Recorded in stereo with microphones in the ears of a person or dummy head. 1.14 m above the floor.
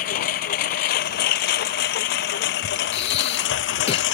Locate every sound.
0.0 s a lawn mower: 50° left (ahead or behind); by 4.2 s 70° left (ahead or behind)
2.9 s breathing: 35° left (ahead or behind)